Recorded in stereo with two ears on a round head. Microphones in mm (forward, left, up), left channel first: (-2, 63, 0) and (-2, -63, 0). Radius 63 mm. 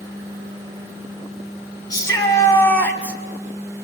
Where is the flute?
I don't hear a flute.